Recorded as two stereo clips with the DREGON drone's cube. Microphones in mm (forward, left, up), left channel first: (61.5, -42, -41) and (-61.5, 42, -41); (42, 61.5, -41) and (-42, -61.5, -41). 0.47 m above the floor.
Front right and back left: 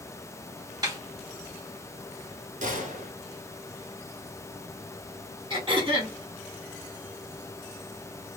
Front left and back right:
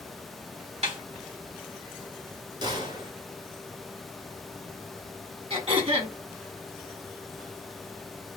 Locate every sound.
0.8 s a snare drum: 155° right, 2.5 m
2.6 s a gunshot: 175° left, 1.7 m
5.5 s throat clearing: 165° right, 2.5 m